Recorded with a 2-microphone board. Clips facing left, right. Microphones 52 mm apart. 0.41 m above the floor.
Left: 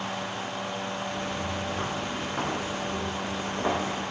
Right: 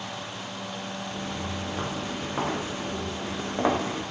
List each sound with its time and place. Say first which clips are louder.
1.1 s footsteps: left 2 dB; 5° right (ahead or behind), 3 m; by 4.0 s 35° right (ahead or behind), 2.5 m